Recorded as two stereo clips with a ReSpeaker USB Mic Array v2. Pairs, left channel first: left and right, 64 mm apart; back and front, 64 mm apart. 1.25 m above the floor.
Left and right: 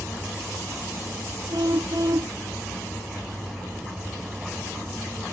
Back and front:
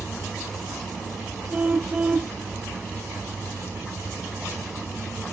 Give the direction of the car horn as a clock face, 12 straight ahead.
2 o'clock.